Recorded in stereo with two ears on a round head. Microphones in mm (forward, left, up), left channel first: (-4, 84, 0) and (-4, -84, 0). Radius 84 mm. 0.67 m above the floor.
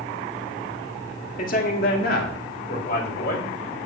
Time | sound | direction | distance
1.4 | a man speaking | 50° left (ahead or behind) | 1.5 m